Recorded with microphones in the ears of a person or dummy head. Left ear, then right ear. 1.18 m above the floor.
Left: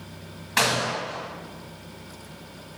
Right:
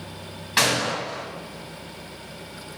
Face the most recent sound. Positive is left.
turn(degrees=10)  # may be behind; listen again after turning